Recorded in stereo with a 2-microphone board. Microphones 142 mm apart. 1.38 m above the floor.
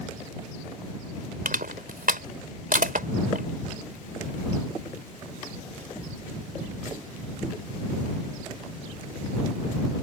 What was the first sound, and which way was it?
Crushing, 85° right.